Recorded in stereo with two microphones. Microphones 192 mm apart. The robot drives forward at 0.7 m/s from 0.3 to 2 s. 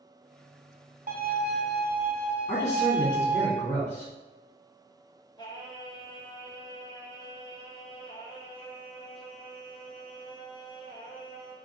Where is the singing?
20° left (ahead or behind), 0.8 m.